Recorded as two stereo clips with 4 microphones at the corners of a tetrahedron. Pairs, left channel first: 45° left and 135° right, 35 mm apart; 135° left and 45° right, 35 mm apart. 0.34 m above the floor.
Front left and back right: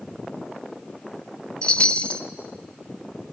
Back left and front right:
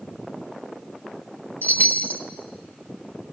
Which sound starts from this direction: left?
A chime, at 1.6 s.